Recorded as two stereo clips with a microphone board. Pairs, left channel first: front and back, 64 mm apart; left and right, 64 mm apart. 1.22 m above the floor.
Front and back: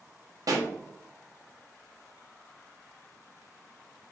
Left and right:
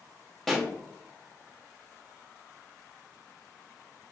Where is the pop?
175° left, 0.8 m.